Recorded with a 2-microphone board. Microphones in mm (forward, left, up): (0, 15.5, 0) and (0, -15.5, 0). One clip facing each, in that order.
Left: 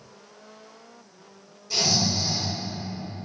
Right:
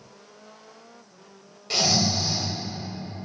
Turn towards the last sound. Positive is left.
turn(degrees=-70)  # may be behind; listen again after turning